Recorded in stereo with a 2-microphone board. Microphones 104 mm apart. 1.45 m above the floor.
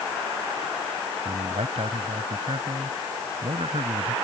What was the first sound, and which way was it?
A man speaking, 80° right.